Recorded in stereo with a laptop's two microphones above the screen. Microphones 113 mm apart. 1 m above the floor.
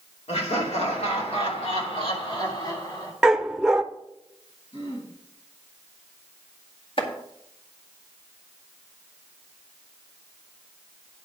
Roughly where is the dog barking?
Centre.